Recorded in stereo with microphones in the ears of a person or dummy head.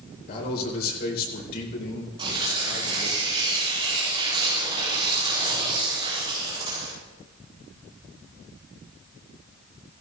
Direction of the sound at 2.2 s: 25° right (ahead or behind).